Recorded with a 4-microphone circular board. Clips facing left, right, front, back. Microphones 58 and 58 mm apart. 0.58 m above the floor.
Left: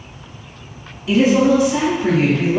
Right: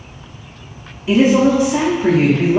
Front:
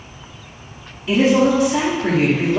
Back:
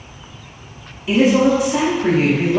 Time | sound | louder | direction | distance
1.1 | a woman speaking | right 1 dB, back 1 dB | 115° right | 0.6 m